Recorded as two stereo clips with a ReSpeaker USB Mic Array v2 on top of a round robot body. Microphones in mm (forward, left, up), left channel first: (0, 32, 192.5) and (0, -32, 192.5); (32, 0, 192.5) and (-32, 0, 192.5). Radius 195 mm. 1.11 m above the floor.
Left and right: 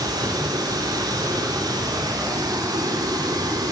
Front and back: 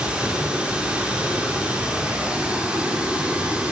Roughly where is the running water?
Right.